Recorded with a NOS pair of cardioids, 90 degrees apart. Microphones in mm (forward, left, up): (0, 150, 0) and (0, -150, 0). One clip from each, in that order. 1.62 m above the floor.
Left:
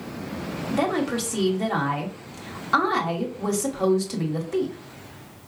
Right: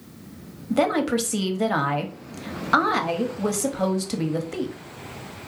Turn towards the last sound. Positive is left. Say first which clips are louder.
# right 3 dB
turn(degrees=-20)